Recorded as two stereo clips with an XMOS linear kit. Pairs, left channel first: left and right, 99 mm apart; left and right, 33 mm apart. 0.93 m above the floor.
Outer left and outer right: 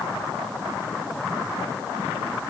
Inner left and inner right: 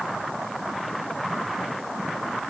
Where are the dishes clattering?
No dishes clattering in this recording.